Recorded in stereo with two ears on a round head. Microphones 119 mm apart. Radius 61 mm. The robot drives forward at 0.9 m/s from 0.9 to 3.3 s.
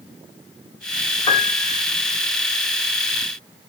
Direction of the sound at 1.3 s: 40° left (ahead or behind).